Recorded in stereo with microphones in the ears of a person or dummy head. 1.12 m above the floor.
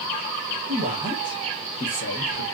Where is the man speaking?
35° right (ahead or behind), 1.0 m; by 2.5 s 60° left (ahead or behind), 1.1 m.